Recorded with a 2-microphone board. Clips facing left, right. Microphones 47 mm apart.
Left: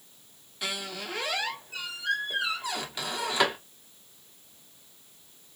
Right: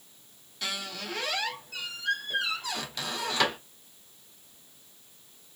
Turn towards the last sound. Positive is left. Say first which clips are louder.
# left 1 dB
turn(degrees=15)  # may be behind; listen again after turning